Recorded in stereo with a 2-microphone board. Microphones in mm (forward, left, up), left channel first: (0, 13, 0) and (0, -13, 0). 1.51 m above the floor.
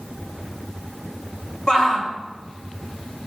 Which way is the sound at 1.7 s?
25° left (ahead or behind).